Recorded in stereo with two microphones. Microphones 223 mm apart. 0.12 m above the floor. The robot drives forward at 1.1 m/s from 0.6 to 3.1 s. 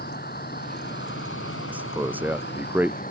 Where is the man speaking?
5° right (ahead or behind); by 3.0 s 10° right (ahead or behind).